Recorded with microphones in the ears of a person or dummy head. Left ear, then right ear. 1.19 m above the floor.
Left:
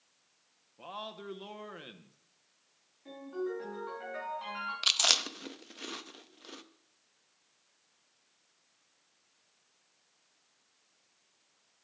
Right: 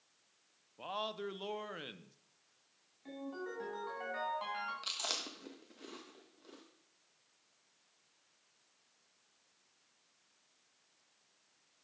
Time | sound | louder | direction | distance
0.8 | a man speaking | right 3 dB | 15° right (ahead or behind) | 0.5 m
3.0 | a ringtone | left 6 dB | 30° right (ahead or behind) | 4 m
4.8 | chewing | left 17 dB | 45° left (ahead or behind) | 0.5 m